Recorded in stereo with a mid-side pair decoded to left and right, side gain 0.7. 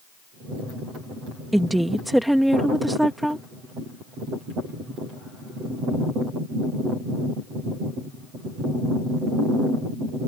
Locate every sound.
1.5 s a woman speaking: 5° right